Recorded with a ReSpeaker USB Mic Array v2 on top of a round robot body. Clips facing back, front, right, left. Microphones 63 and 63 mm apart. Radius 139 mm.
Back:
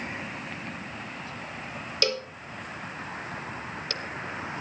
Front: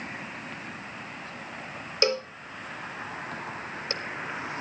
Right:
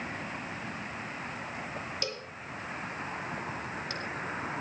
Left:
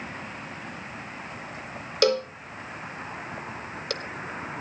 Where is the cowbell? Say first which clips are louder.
Front 4 dB, left 15 dB; 65° left, 0.8 m.